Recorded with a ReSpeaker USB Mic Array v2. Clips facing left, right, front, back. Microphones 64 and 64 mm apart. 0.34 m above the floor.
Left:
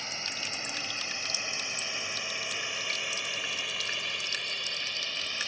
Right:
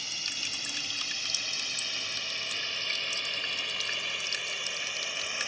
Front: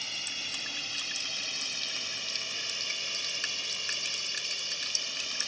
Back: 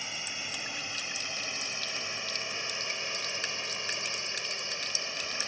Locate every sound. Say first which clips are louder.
0.0 s a drone: left 2 dB, back 1 dB; 120° left; by 5.5 s 150° right